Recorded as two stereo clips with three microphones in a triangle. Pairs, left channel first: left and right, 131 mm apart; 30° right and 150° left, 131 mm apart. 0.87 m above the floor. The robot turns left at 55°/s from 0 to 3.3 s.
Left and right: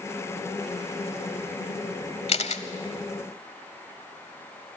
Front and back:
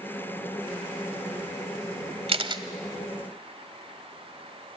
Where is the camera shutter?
120° left, 1.2 m; by 2.6 s 100° left, 1.2 m.